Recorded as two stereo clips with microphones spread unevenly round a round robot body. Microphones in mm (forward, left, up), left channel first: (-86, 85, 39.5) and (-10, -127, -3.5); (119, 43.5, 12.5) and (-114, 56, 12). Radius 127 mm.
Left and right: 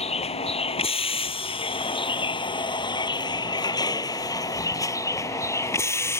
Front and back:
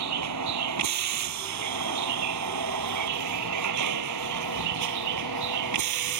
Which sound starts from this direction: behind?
A vehicle, at 0.0 s.